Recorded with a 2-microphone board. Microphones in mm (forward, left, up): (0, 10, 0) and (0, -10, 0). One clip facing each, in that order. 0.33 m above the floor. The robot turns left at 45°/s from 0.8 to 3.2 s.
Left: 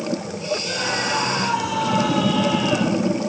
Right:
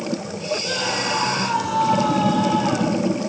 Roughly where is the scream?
Behind.